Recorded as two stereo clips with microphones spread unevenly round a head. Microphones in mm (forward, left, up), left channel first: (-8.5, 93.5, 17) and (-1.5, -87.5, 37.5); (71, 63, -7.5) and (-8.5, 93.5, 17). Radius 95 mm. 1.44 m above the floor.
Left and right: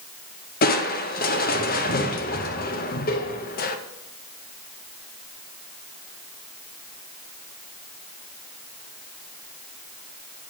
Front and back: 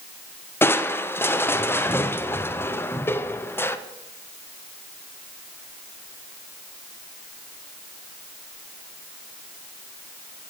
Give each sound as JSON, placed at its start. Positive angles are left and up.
{"t": 0.6, "sound": "crushing", "azimuth_deg": 50, "distance_m": 0.5}